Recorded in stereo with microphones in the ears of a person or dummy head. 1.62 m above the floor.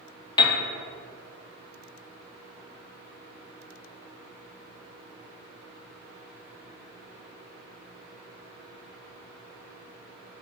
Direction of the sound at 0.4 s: 20° left (ahead or behind).